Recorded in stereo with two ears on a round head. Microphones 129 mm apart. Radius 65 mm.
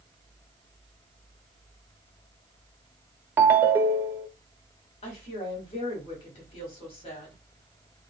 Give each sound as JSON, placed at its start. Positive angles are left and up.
{"t": 3.4, "sound": "a ringtone", "side_deg": -15, "distance_m": 0.5}
{"t": 5.0, "sound": "a woman speaking", "side_deg": 40, "distance_m": 1.5}